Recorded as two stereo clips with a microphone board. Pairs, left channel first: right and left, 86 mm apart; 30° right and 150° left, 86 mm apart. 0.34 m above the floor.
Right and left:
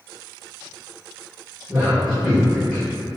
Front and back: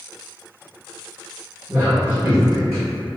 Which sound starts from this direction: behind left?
A man speaking, at 1.7 s.